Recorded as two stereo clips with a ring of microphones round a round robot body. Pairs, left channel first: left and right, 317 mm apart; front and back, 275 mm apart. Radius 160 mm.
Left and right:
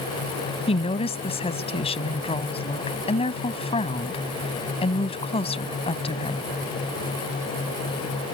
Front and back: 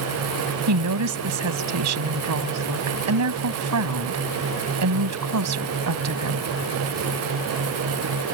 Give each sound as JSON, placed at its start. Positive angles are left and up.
{"t": 0.7, "sound": "a woman speaking", "azimuth_deg": 160}